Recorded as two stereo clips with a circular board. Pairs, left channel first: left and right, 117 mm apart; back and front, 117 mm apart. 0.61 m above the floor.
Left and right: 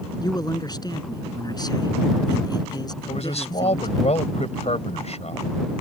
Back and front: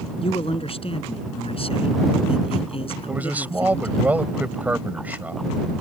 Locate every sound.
0.2 s a man speaking: 145° left
3.1 s a man speaking: 75° left